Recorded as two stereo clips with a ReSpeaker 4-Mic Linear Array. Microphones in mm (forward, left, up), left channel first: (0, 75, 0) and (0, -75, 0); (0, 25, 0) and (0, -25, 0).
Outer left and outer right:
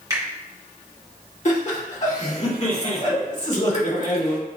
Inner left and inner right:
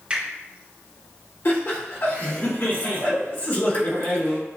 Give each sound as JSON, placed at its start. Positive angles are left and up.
{"t": 0.1, "sound": "a finger snap", "side_deg": -25, "distance_m": 1.8}
{"t": 1.4, "sound": "laughter", "side_deg": 50, "distance_m": 1.5}